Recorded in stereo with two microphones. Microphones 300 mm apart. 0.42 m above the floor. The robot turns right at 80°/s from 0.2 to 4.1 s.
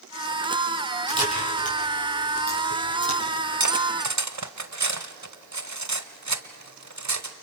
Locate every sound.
1.1 s a camera shutter: 25° right (ahead or behind), 6 m; by 3.2 s 35° left (ahead or behind), 6 m
3.6 s cutlery clinking: 65° right (ahead or behind), 1.0 m; by 7.3 s 60° right (ahead or behind), 1.0 m